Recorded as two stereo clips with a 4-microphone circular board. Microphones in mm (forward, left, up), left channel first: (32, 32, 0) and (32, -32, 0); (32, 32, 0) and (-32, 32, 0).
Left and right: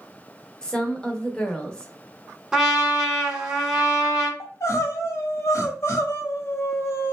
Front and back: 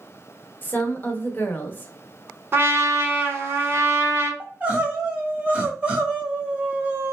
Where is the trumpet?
165° right, 1.3 m.